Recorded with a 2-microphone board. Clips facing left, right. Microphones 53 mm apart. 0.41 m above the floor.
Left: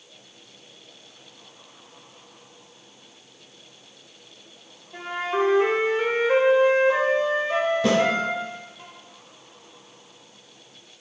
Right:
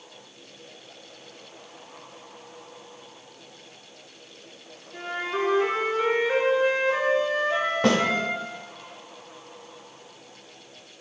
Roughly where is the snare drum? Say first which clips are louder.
Right 1 dB; right.